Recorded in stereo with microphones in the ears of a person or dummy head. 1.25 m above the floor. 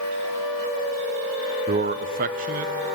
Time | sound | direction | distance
1.7 | a man speaking | 30° right (ahead or behind) | 0.6 m